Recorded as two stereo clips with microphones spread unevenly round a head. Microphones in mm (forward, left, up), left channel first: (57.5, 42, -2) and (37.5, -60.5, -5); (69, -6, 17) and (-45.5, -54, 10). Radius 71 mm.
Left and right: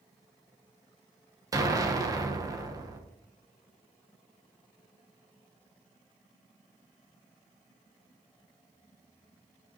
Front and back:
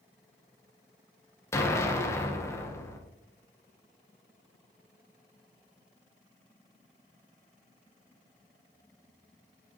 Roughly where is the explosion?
Ahead right.